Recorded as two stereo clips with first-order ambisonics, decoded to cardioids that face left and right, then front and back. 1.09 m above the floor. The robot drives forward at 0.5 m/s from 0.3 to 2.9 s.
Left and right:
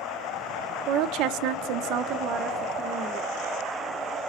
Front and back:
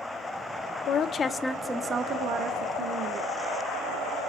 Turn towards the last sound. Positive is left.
turn(degrees=-145)